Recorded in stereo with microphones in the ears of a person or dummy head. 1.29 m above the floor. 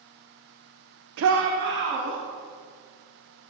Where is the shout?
70° right (ahead or behind), 0.5 m; by 2.2 s 60° right (ahead or behind), 1.9 m.